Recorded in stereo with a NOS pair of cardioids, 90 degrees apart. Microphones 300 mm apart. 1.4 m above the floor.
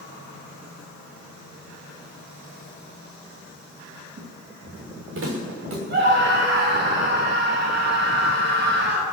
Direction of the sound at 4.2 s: 50° right.